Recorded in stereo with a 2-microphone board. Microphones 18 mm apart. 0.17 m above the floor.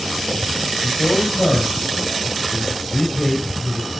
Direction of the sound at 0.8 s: 35° left (ahead or behind).